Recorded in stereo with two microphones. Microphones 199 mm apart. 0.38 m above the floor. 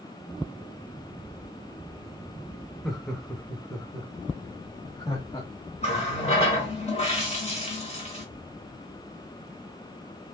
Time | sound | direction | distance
2.8 | laughter | centre (ahead or behind) | 0.9 m
5.8 | a running tap | 30° left (ahead or behind) | 1.1 m